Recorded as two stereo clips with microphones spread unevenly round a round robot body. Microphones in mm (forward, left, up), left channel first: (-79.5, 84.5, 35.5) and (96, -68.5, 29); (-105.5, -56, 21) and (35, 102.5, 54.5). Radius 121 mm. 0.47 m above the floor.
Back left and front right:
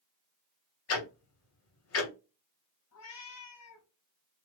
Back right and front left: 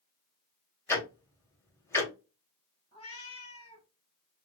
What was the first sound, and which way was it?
Ticking, 160° left.